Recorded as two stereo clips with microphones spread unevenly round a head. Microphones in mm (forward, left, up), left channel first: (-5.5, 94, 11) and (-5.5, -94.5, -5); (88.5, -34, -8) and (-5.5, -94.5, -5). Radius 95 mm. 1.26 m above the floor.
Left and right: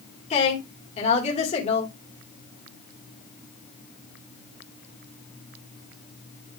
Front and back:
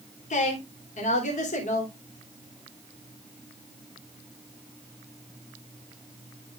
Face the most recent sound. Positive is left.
turn(degrees=30)